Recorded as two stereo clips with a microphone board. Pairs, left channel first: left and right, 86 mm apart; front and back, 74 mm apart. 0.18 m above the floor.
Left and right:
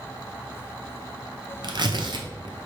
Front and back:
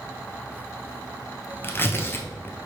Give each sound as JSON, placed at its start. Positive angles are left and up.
{"t": 1.6, "sound": "tearing paper", "azimuth_deg": -60, "distance_m": 0.6}